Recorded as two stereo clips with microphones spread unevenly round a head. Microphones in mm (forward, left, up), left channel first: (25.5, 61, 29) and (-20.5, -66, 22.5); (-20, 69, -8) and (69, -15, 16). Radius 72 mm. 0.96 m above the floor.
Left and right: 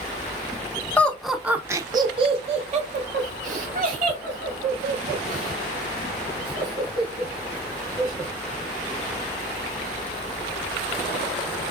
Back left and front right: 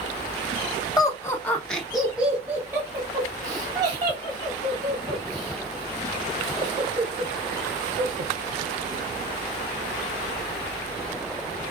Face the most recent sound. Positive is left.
turn(degrees=-100)